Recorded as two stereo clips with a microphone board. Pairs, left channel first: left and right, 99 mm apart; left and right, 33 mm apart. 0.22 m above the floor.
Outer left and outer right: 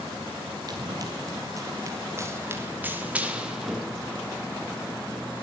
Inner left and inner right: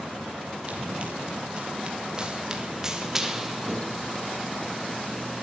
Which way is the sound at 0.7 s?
40° right (ahead or behind).